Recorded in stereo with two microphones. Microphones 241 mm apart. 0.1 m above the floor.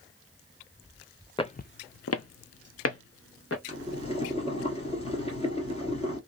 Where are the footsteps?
20° left (ahead or behind), 0.6 m; by 3.6 s 60° left (ahead or behind), 1.6 m.